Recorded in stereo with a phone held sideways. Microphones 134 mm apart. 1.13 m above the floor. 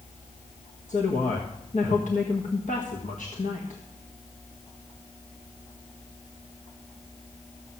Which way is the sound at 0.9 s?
65° left (ahead or behind).